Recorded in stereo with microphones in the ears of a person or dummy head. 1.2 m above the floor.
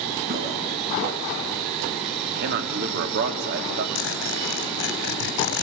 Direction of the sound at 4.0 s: 60° left (ahead or behind).